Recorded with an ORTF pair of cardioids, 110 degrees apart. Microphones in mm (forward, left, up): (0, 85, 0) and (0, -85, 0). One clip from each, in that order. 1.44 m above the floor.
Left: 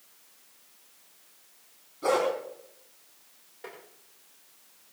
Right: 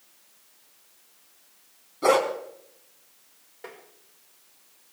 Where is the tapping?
15° right, 5 m.